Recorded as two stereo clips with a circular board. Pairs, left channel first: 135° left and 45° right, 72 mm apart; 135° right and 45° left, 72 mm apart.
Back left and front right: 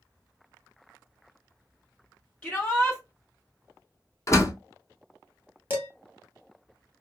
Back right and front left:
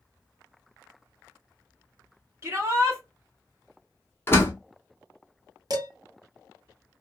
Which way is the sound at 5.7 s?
20° left.